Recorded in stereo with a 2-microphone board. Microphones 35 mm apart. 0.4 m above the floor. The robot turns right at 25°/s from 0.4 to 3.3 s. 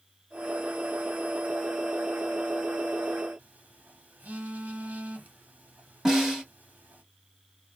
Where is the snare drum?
15° right (ahead or behind), 1.3 m.